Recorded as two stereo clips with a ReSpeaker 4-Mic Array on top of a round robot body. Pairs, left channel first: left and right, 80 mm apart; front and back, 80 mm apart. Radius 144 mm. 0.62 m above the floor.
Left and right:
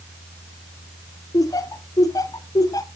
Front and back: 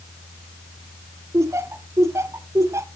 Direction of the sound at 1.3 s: 130° left.